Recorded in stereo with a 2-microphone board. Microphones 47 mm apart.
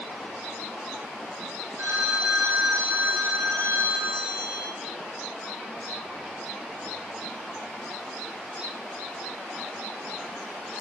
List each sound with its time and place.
1.8 s a phone ringing: 75° right (ahead or behind), 8 m